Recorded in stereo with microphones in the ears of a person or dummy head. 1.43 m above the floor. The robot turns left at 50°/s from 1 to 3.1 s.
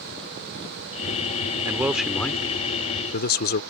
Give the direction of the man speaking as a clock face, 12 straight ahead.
5 o'clock.